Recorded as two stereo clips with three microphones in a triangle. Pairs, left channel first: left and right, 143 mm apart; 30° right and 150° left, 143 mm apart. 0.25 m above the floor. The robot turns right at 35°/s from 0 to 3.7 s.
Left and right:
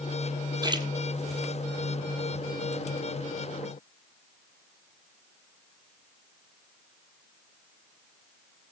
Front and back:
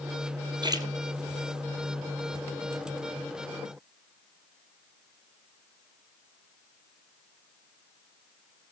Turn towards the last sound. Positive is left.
turn(degrees=-45)